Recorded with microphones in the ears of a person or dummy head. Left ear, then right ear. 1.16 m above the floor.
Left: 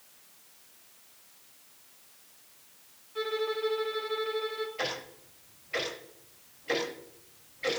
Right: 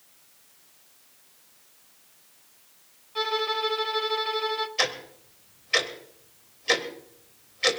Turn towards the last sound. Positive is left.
turn(degrees=-85)